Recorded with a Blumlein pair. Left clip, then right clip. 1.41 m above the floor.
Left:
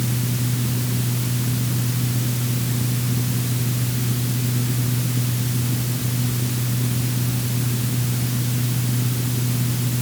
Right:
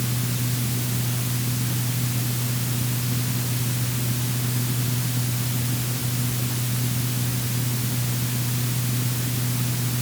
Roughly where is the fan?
Ahead.